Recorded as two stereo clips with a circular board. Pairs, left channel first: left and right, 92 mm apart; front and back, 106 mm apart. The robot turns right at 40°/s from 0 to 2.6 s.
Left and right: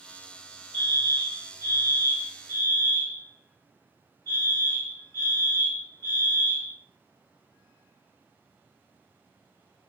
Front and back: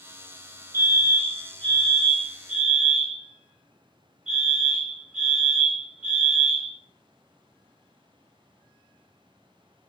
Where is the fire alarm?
25° left, 1.9 m; by 6.8 s 100° left, 1.9 m.